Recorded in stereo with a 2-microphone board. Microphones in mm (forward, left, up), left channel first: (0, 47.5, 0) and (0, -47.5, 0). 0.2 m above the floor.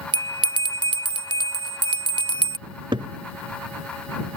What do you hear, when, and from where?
0.1 s a bell: 80° right
2.7 s a cupboard door: 60° right (ahead or behind)